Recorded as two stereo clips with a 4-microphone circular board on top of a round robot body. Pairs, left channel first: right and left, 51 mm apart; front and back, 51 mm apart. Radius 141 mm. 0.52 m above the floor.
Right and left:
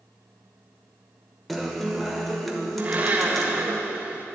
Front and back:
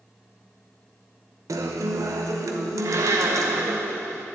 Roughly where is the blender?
Behind left.